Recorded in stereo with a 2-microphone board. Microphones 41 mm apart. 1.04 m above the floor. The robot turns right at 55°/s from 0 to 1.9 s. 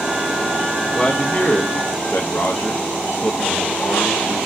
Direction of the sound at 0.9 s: 25° left.